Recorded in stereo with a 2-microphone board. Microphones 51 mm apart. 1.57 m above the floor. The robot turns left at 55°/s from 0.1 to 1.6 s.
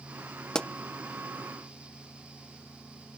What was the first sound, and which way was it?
A pop, 15° left (ahead or behind).